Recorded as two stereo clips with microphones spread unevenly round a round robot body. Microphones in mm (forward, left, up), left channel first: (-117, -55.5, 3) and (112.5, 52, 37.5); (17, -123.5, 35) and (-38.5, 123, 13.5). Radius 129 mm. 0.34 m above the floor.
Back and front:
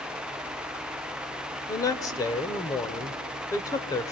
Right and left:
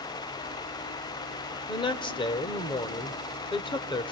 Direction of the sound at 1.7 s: 130° right.